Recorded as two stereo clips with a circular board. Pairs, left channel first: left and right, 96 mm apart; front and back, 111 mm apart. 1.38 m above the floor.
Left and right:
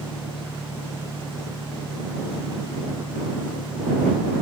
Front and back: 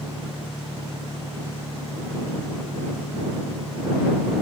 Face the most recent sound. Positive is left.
turn(degrees=100)